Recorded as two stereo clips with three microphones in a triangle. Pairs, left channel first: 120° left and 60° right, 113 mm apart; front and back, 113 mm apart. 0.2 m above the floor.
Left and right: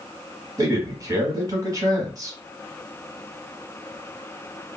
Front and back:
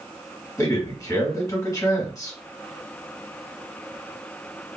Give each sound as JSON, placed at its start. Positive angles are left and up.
{"t": 0.6, "sound": "a man speaking", "azimuth_deg": -30, "distance_m": 1.1}